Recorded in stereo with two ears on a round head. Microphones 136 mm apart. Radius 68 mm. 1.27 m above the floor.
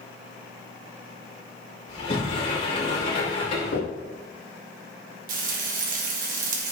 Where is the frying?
55° right (ahead or behind), 1.8 m.